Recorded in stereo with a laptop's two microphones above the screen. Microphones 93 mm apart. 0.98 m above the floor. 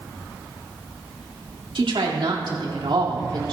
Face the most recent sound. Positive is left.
turn(degrees=-65)  # may be behind; listen again after turning